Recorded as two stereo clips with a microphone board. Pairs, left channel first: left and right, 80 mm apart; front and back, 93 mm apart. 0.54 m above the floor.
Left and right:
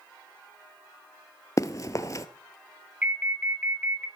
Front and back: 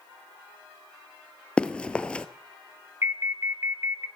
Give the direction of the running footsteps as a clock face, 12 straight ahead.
10 o'clock.